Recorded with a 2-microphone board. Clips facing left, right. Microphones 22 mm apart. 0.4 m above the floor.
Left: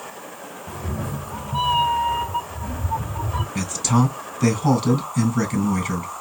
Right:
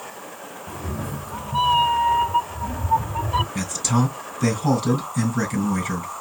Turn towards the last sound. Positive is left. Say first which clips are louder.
# left 2 dB
turn(degrees=30)  # may be behind; listen again after turning